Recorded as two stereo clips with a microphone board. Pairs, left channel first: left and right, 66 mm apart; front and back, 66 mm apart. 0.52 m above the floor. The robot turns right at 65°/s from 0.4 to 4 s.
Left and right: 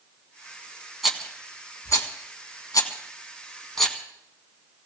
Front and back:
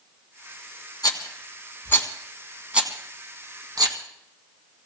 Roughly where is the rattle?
Ahead.